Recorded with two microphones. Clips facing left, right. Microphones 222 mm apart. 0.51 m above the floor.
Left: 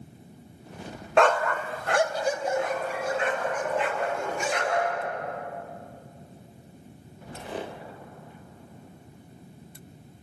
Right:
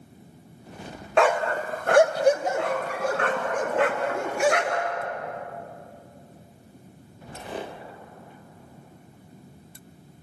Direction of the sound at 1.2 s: Centre (ahead or behind).